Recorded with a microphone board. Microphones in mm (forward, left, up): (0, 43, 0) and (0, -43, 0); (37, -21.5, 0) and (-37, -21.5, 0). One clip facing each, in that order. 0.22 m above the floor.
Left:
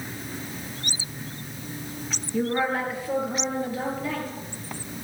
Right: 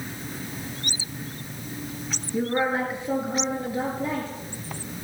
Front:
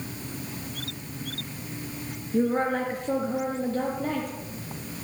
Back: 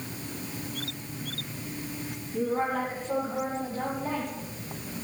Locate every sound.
2.3 s a woman speaking: 15° right, 4 m; by 4.3 s 30° right, 5 m